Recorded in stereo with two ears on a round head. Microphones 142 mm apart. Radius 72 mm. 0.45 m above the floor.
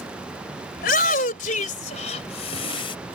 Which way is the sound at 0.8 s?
60° left (ahead or behind).